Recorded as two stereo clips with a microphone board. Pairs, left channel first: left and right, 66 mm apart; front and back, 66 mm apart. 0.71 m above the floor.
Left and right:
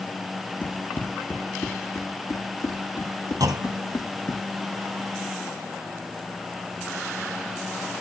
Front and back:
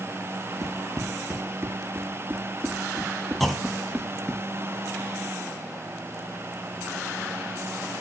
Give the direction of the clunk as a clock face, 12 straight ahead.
3 o'clock.